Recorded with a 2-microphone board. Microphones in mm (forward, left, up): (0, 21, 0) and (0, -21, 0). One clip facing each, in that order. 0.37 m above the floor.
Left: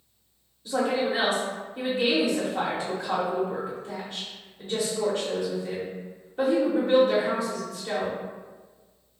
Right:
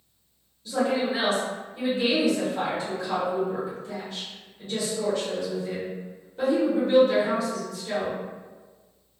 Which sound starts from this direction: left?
A woman speaking, at 0.7 s.